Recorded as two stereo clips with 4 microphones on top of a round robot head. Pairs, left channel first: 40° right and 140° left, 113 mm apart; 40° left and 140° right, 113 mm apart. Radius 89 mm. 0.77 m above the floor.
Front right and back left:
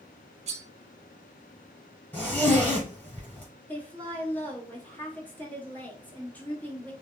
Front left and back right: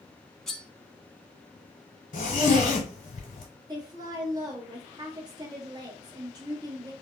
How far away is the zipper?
About 0.7 m.